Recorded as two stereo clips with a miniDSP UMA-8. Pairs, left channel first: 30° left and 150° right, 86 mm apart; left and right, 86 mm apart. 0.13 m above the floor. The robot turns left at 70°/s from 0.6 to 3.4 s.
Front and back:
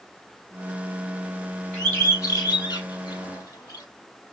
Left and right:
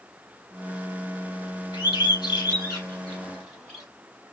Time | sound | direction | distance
1.7 | a bird | 115° left | 3.5 m